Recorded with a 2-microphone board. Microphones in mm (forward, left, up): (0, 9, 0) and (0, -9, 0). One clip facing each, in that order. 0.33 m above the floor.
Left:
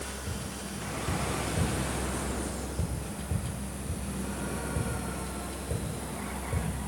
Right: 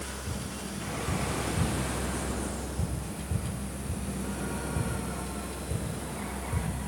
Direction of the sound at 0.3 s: 45° left (ahead or behind).